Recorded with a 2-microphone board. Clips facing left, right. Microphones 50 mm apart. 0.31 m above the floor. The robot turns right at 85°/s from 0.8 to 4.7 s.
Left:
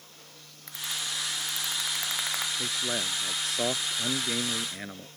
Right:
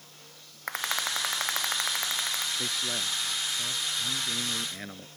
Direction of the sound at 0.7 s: 125° right.